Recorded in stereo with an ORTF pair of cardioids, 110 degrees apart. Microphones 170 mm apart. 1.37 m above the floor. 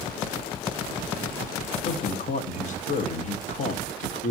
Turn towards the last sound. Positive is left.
turn(degrees=45)